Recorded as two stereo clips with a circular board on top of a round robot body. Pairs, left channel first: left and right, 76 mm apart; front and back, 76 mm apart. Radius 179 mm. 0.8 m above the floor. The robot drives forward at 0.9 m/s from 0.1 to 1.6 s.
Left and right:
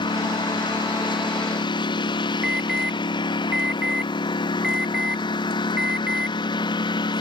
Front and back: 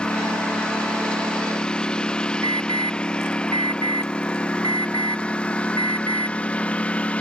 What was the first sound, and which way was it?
A lawn mower, 80° left.